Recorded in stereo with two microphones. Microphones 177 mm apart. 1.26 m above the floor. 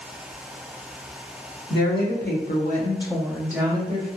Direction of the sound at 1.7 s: 80° left.